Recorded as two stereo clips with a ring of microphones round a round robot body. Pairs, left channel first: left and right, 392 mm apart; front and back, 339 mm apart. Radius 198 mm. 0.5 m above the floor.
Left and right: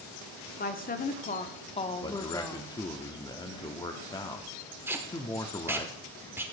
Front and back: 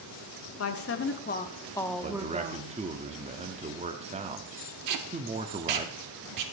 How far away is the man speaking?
About 0.8 m.